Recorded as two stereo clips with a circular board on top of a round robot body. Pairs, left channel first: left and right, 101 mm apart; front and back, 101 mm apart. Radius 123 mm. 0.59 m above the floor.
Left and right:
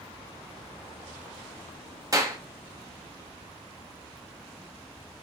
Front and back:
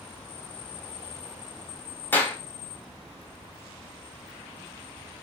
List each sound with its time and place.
2.1 s a clap: 60° right, 1.1 m